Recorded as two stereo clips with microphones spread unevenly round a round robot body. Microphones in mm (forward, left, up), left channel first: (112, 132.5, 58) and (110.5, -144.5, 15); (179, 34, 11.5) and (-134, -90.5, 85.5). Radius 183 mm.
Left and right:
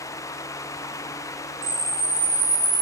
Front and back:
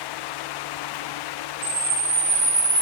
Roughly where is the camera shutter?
Behind right.